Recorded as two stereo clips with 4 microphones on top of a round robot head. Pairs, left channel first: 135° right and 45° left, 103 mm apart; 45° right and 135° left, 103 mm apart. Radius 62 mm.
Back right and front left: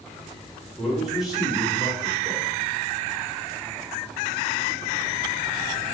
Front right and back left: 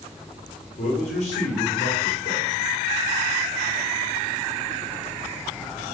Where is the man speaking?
40° right, 1.3 m.